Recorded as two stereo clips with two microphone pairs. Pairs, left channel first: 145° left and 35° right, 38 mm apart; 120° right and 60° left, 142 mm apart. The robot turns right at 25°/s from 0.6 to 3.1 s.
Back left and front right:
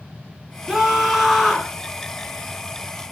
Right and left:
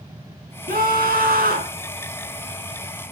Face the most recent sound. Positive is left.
turn(degrees=105)